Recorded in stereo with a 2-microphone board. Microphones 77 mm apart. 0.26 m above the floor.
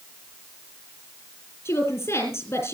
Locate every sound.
1.6 s a woman speaking: 30° left (ahead or behind), 6.5 m